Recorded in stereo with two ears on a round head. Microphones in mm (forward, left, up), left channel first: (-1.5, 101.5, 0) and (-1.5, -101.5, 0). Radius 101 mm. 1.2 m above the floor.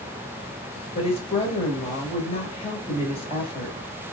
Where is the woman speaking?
25° left (ahead or behind), 1.8 m.